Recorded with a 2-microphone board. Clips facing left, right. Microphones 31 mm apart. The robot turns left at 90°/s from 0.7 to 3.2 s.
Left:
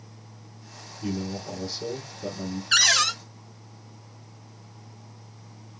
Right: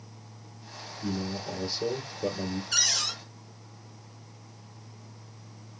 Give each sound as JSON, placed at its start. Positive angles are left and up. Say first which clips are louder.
{"t": 1.0, "sound": "a man speaking", "louder": "left 2 dB", "azimuth_deg": 40, "distance_m": 3.0}
{"t": 2.7, "sound": "a cupboard door", "louder": "left 9 dB", "azimuth_deg": 105, "distance_m": 0.7}